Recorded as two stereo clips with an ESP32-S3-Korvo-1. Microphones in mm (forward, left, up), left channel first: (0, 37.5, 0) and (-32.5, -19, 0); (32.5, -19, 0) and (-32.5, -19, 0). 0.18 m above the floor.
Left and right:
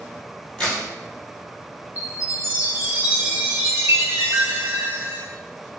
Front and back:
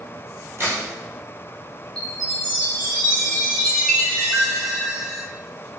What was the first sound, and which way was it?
A crack, 135° left.